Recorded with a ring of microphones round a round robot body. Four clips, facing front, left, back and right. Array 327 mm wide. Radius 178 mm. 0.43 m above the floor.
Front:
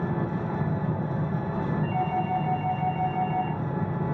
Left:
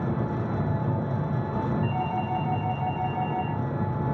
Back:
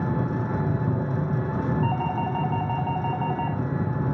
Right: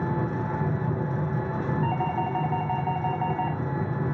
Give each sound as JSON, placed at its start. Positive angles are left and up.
{"t": 0.0, "sound": "an engine running", "azimuth_deg": 155, "distance_m": 3.5}
{"t": 1.8, "sound": "a doorbell", "azimuth_deg": -145, "distance_m": 4.0}